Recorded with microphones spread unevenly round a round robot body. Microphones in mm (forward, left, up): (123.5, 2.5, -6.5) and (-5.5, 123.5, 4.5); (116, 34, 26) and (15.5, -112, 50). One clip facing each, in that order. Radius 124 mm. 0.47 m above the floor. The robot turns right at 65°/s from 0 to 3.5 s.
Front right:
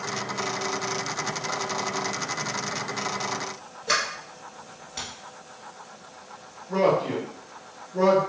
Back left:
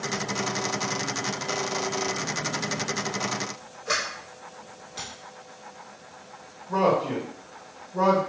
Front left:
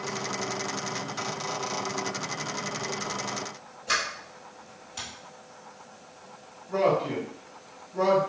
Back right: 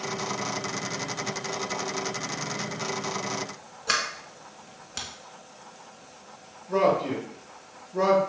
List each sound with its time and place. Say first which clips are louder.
3.9 s a sliding door: front right 1 dB, back right 1 dB; 120° right, 0.9 m
6.7 s a man speaking: front right 1 dB, back right 1 dB; 120° right, 1.2 m